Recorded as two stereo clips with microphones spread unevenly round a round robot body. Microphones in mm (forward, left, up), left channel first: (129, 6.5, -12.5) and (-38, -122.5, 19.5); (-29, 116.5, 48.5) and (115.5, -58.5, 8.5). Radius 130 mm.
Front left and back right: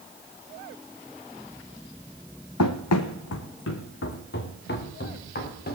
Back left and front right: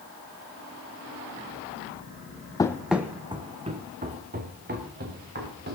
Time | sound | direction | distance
2.6 | running footsteps | 60° left | 1.0 m